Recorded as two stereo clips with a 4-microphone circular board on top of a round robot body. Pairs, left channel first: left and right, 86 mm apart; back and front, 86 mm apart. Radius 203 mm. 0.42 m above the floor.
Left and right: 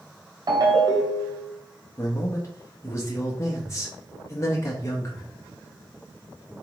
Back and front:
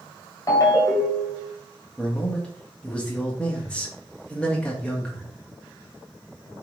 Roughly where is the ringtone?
Behind right.